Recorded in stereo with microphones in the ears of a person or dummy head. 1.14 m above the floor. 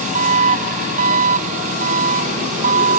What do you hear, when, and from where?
0.0 s an engine running: 40° right (ahead or behind)